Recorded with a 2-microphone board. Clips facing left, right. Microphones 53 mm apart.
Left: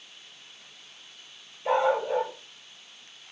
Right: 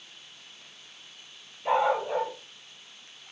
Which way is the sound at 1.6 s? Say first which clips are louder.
Left 1 dB; 10° right (ahead or behind).